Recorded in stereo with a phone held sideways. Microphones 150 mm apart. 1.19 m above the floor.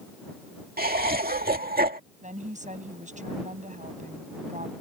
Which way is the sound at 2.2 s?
55° right (ahead or behind).